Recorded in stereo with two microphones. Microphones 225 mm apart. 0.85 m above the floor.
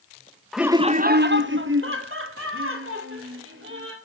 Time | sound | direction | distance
0.5 | laughter | centre (ahead or behind) | 0.6 m